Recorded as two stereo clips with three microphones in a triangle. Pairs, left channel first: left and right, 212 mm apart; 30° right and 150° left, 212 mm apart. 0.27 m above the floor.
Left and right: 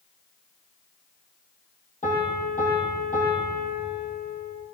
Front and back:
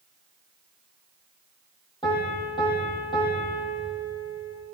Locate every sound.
2.0 s a piano: 40° left, 9 m